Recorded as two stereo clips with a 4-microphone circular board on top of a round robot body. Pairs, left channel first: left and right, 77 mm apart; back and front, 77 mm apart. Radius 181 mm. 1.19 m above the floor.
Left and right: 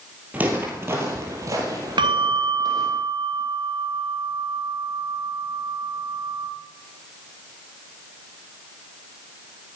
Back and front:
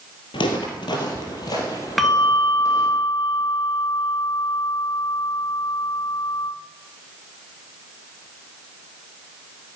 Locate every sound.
0.3 s footsteps: 165° right, 1.8 m; by 3.0 s 125° right, 2.5 m
2.0 s a bell: 90° right, 2.5 m